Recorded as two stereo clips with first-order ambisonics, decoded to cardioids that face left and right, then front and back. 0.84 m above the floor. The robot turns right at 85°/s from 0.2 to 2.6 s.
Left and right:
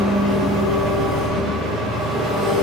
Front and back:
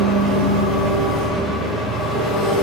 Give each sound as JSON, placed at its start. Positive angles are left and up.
{"t": 0.0, "sound": "an engine running", "azimuth_deg": 145, "distance_m": 1.5}